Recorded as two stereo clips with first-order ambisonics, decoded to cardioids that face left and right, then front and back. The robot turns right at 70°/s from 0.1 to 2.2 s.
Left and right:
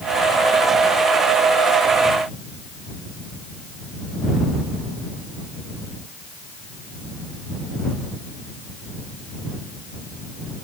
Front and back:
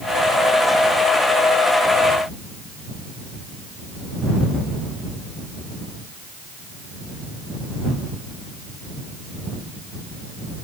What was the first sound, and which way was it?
Only background noise.